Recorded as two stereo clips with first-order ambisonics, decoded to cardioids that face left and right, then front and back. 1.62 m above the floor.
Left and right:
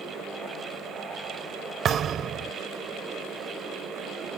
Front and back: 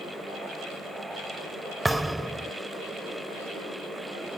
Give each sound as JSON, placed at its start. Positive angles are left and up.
{"t": 1.9, "sound": "a thud", "azimuth_deg": -100}